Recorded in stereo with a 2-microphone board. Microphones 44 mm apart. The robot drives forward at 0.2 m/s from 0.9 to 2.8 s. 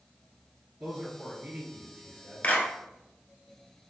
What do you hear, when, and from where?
0.8 s a man speaking: 30° right (ahead or behind), 1.5 m; by 2.5 s 25° right (ahead or behind), 1.7 m
2.4 s a clap: 40° left (ahead or behind), 1.1 m